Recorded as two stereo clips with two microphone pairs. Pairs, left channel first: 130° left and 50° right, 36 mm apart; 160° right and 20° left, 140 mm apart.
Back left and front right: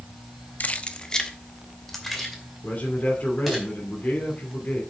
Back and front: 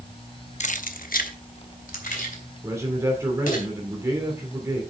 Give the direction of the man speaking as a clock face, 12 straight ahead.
9 o'clock.